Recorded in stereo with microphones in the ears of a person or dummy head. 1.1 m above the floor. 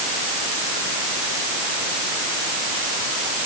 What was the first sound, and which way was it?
Only background noise.